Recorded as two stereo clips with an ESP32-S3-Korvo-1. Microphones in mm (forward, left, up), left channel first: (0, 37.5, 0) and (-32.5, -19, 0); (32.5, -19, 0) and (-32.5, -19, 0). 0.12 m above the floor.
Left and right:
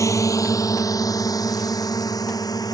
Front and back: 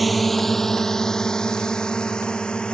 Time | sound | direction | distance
0.0 | a drone | 90° left | ?